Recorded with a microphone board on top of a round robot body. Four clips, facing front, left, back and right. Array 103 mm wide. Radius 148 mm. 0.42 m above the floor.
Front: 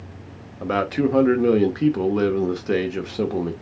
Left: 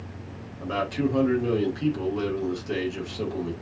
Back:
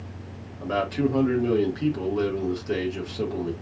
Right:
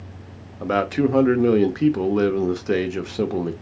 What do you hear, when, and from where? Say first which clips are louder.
0.6 s a man speaking: right 6 dB, front 3 dB; 55° right, 1.6 m